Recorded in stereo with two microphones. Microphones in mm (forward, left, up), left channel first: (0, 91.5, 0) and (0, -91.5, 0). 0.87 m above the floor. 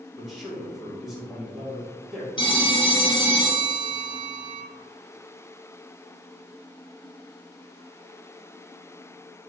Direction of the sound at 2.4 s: 25° left (ahead or behind).